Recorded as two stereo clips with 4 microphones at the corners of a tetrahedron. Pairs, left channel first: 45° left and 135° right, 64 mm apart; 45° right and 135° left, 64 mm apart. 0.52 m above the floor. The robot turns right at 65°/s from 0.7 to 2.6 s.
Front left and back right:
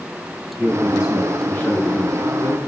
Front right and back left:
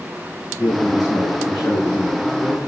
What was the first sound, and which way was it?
A man speaking, 80° right.